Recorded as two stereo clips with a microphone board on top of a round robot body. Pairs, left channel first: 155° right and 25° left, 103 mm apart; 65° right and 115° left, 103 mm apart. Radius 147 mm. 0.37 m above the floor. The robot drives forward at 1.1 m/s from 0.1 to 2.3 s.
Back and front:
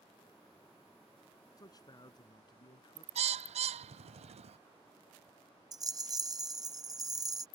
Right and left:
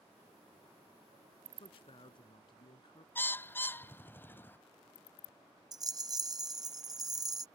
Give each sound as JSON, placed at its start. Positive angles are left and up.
{"t": 1.6, "sound": "a man speaking", "azimuth_deg": -105}
{"t": 3.1, "sound": "a bird", "azimuth_deg": 5}
{"t": 5.7, "sound": "a rattle", "azimuth_deg": 65}